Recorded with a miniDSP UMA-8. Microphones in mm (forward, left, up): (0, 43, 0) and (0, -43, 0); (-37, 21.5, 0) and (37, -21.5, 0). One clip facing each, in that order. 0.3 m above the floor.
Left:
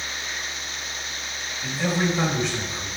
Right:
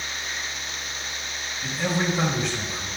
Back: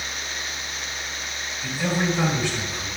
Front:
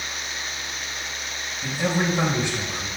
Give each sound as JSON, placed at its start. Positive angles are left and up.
{"t": 1.6, "sound": "a man speaking", "azimuth_deg": 0, "distance_m": 1.5}